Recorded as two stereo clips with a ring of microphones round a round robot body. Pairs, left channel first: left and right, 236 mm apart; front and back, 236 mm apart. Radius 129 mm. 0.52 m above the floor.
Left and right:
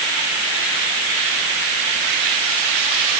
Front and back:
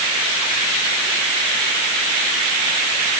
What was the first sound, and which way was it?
Only background noise.